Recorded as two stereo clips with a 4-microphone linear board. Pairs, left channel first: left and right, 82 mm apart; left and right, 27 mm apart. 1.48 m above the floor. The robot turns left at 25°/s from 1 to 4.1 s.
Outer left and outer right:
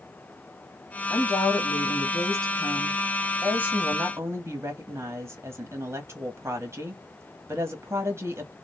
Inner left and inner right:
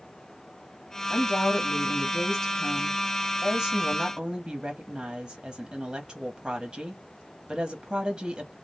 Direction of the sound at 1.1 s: 40° left.